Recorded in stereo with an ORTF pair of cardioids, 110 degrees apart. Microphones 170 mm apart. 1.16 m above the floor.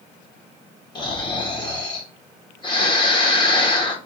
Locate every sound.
0.9 s snoring: 25° left, 1.7 m